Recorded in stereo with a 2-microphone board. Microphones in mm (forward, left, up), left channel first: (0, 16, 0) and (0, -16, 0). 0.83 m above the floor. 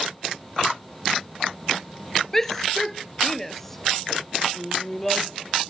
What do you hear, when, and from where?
2.3 s a shout: 15° left (ahead or behind); by 5.7 s 10° left (ahead or behind)